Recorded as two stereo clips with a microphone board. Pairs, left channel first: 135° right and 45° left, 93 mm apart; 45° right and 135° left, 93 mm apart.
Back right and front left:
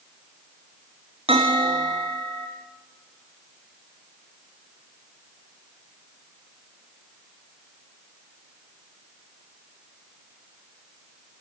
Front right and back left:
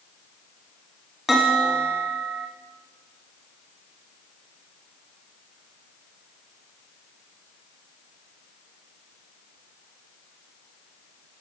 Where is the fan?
No fan in this recording.